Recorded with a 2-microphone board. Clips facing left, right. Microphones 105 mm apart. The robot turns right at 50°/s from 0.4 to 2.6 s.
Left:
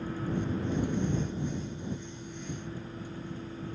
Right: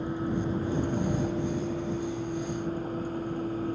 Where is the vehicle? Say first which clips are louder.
Right 3 dB; 160° right; by 3.8 s 50° right.